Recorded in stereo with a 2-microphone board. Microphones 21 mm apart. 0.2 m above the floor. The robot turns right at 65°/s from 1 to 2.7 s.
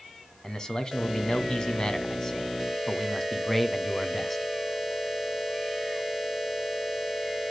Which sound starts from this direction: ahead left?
A man speaking, at 0.4 s.